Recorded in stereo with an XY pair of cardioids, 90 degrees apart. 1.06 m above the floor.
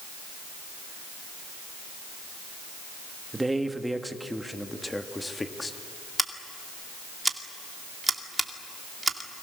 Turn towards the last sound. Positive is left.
turn(degrees=-15)